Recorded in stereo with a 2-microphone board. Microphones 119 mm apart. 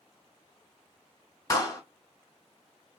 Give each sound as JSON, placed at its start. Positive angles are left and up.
{"t": 1.5, "sound": "a clap", "side_deg": 30, "distance_m": 1.0}